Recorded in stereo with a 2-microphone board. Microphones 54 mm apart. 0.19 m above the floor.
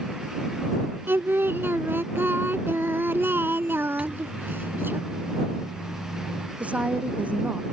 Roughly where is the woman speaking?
Right.